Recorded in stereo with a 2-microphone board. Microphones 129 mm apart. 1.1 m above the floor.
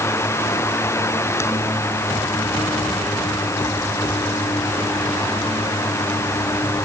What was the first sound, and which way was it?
Only background noise.